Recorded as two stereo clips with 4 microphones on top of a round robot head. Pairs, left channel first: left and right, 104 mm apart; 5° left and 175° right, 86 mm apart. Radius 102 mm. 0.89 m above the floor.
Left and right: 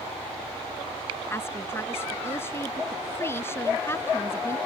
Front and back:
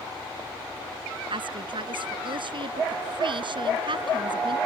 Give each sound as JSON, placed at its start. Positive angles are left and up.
{"t": 1.3, "sound": "a woman speaking", "azimuth_deg": 160}